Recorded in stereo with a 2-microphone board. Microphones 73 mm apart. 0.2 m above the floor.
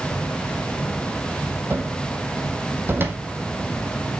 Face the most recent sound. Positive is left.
turn(degrees=-30)  # may be behind; listen again after turning